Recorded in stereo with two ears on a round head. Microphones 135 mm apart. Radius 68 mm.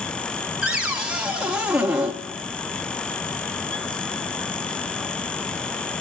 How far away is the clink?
I don't hear a clink.